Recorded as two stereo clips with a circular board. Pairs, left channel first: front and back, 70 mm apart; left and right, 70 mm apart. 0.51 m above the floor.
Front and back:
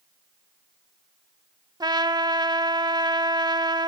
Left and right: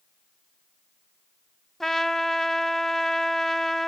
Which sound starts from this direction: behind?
A trumpet, at 1.8 s.